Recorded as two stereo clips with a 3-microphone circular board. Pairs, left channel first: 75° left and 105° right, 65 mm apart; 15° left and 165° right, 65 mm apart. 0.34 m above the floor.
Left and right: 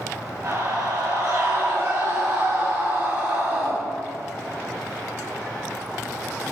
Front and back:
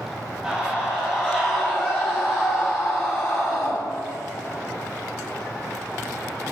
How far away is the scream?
About 2.5 m.